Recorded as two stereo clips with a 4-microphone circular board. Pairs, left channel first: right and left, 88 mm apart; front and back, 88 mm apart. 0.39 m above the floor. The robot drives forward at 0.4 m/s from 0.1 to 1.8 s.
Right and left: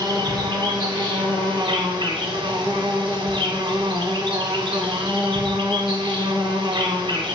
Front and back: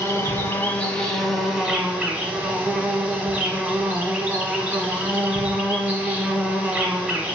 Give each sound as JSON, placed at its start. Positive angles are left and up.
{"t": 0.0, "sound": "an insect", "azimuth_deg": 55, "distance_m": 0.9}